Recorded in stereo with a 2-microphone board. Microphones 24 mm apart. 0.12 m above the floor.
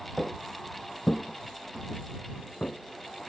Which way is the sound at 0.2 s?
20° right (ahead or behind).